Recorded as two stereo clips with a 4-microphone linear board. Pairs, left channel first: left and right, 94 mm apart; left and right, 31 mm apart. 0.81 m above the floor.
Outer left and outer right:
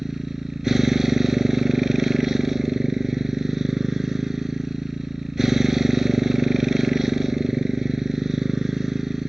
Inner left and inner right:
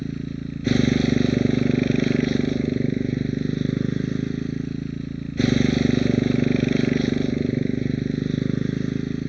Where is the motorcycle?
5° right (ahead or behind).